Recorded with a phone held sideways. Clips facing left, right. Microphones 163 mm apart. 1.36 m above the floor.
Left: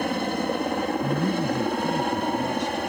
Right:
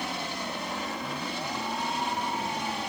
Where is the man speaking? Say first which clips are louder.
Left 11 dB; 80° left.